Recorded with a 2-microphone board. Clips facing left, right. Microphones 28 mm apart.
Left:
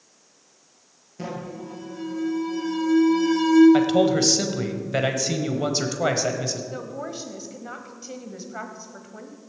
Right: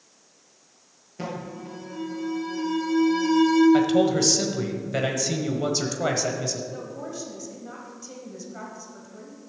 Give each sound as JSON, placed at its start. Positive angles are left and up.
{"t": 1.2, "sound": "an alarm", "side_deg": -20, "distance_m": 4.5}
{"t": 3.7, "sound": "a man speaking", "side_deg": 15, "distance_m": 1.2}
{"t": 6.7, "sound": "a woman speaking", "side_deg": 35, "distance_m": 1.3}